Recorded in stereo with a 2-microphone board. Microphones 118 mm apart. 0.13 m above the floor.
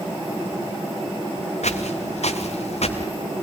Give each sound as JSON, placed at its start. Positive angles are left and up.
{"t": 1.6, "sound": "footsteps", "side_deg": 80, "distance_m": 3.0}